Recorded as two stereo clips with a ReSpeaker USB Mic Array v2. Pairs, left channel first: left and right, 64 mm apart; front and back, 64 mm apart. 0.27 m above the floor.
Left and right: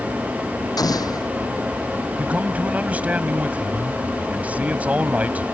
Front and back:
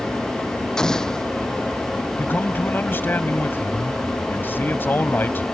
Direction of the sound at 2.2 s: 35° right.